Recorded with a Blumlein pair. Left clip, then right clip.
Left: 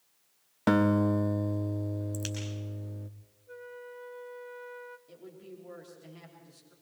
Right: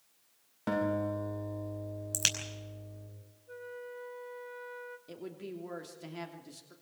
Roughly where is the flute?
Ahead.